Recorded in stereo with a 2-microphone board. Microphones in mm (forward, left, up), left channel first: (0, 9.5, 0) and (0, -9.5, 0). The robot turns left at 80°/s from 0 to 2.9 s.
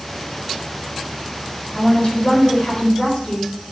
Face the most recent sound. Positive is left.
turn(degrees=55)